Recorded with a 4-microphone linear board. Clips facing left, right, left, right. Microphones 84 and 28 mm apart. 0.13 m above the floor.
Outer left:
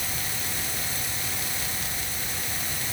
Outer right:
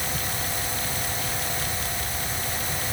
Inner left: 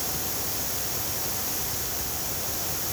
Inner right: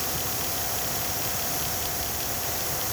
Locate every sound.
Only background noise.